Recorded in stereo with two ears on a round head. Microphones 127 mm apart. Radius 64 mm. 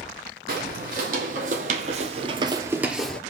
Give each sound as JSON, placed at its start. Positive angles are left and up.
{"t": 0.5, "sound": "footsteps", "side_deg": -70, "distance_m": 1.5}